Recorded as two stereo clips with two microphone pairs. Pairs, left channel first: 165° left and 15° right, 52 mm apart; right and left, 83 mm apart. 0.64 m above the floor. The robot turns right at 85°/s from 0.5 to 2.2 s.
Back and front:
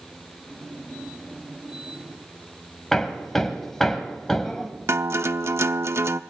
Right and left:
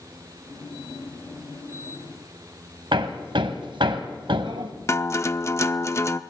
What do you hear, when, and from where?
2.9 s hammering: 80° left, 1.8 m
4.9 s a guitar: 40° right, 0.7 m